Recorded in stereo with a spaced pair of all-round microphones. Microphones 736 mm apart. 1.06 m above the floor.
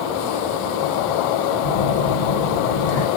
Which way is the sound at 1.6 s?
55° left (ahead or behind).